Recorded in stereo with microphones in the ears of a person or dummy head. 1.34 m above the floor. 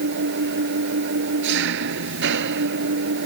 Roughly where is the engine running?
Right.